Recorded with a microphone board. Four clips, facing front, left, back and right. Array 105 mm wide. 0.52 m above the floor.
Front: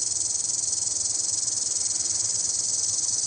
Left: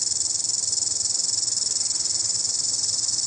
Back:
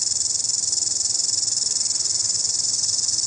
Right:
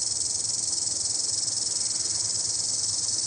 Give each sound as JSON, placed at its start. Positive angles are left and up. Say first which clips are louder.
{"t": 0.0, "sound": "an insect", "louder": "left 1 dB, back 2 dB", "azimuth_deg": 160, "distance_m": 0.7}